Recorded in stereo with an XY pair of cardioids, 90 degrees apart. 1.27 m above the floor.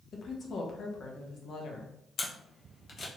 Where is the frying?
No frying in this recording.